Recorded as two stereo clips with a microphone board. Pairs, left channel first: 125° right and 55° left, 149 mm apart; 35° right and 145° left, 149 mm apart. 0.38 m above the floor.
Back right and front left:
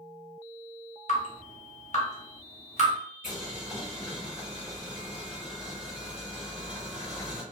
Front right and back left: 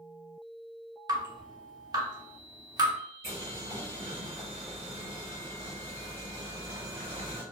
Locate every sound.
1.1 s dripping: 155° right, 0.8 m
3.2 s boiling: 150° left, 1.5 m